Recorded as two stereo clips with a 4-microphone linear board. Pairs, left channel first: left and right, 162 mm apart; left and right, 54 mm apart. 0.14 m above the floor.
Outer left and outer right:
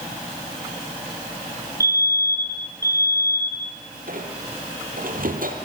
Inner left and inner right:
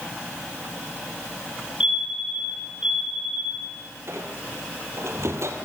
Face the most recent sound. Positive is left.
turn(degrees=-65)  # may be behind; listen again after turning